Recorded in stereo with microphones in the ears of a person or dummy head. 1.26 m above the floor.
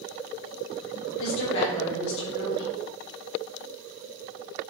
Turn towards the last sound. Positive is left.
turn(degrees=75)  # may be behind; listen again after turning